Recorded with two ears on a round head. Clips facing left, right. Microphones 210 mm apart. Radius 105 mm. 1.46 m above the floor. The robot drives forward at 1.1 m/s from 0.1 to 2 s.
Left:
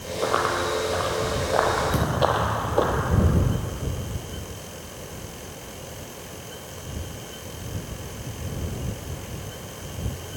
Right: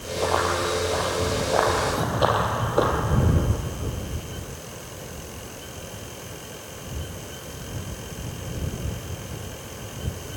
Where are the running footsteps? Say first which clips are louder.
Even; 15° left (ahead or behind), 2.5 m; by 2.9 s 10° right (ahead or behind), 2.5 m.